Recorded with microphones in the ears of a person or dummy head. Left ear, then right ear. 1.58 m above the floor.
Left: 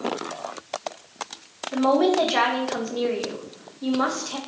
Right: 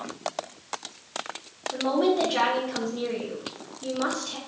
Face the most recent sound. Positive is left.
turn(degrees=50)  # may be behind; listen again after turning